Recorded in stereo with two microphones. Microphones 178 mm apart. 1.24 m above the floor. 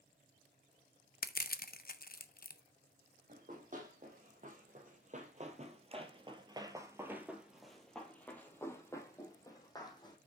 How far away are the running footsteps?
About 2.5 m.